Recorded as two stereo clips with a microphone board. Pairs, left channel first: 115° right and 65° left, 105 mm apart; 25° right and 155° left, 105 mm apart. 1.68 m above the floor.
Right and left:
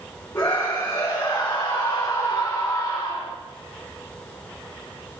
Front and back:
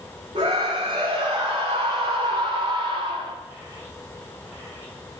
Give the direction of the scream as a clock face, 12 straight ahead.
6 o'clock.